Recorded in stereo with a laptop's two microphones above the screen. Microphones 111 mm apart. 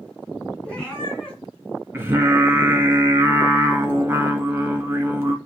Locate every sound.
0.6 s a cat meowing: 10° left (ahead or behind), 3.5 m
1.9 s singing: 20° right (ahead or behind), 1.8 m